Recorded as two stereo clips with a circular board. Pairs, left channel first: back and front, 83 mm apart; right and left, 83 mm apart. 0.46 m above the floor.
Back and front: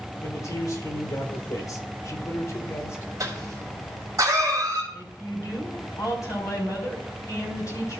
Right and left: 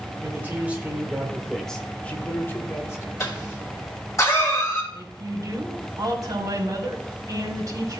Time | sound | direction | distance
0.2 | a man speaking | 145° left | 1.5 m
3.2 | a cough | 45° right | 3 m
4.9 | a woman speaking | 135° left | 2.5 m